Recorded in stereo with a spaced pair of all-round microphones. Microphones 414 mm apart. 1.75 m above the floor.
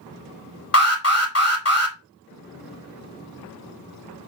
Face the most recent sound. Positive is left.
turn(degrees=35)  # may be behind; listen again after turning